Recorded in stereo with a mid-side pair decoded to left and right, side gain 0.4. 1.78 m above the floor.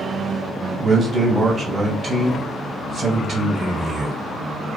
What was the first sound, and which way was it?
A man speaking, 45° right.